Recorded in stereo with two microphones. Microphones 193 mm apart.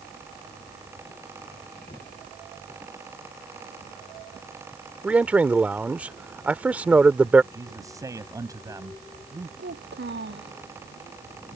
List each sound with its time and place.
5.0 s a man speaking: 5° right (ahead or behind)
7.5 s a man speaking: 20° right (ahead or behind)
9.6 s a child speaking: 70° right (ahead or behind)